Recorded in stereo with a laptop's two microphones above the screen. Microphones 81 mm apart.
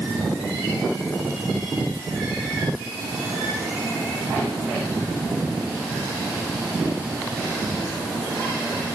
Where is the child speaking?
I don't hear a child speaking.